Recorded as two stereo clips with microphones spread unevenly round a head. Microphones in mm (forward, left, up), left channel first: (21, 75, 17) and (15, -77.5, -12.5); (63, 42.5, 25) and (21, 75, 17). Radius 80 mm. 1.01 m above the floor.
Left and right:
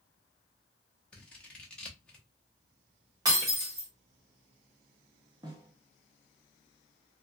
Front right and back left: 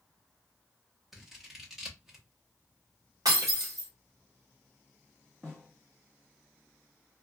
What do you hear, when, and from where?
1.1 s scissors: 170° right, 0.7 m
3.2 s breaking glass: 165° right, 1.2 m
5.4 s a snare drum: 130° right, 0.9 m